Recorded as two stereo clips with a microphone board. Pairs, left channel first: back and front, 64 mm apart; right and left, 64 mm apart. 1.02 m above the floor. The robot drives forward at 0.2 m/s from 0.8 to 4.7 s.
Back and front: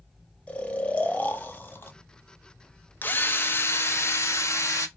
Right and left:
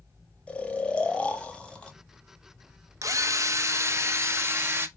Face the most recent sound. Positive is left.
turn(degrees=140)